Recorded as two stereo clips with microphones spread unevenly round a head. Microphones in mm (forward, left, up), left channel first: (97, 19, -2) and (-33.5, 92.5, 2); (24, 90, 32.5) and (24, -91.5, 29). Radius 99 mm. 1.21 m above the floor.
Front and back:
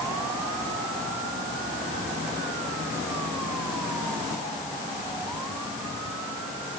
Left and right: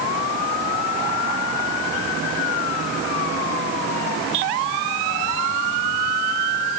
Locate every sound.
Only background noise.